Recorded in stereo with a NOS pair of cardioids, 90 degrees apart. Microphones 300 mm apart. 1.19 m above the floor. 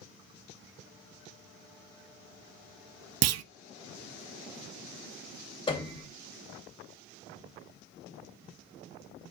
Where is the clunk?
60° right, 0.6 m.